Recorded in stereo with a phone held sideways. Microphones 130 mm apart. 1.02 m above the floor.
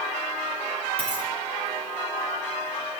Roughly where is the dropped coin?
Right.